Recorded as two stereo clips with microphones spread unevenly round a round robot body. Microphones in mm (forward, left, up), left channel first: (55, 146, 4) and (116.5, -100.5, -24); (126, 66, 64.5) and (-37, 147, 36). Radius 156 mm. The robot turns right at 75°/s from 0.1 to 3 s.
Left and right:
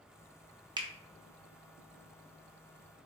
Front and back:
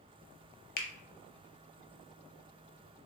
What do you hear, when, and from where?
0.8 s a finger snap: 20° right, 0.6 m; by 0.9 s 10° right, 0.6 m